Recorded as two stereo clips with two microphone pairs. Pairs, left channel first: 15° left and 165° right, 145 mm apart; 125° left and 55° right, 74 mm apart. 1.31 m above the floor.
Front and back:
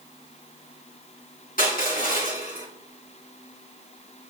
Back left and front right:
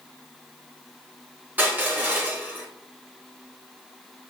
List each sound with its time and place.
1.6 s crushing: 10° left, 3.5 m